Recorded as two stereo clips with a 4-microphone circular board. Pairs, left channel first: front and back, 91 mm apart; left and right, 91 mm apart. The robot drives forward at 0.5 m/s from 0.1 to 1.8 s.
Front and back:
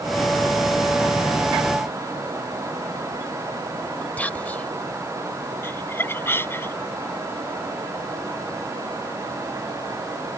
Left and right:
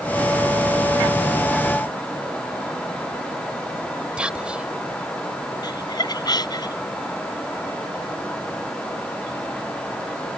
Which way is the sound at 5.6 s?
60° left.